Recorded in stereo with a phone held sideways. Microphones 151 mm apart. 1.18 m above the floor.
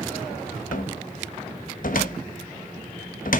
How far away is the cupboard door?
About 0.9 m.